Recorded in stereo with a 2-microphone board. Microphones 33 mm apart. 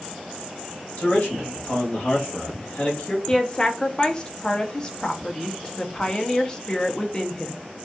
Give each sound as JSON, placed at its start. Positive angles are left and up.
{"t": 1.0, "sound": "a man speaking", "side_deg": 45, "distance_m": 2.5}
{"t": 3.3, "sound": "a woman speaking", "side_deg": 25, "distance_m": 0.9}